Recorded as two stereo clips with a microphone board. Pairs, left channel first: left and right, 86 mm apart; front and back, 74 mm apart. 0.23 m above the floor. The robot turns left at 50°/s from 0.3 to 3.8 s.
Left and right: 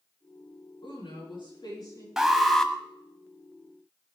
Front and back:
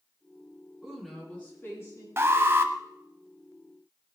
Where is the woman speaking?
100° left, 8.5 m; by 2.1 s 40° left, 8.5 m.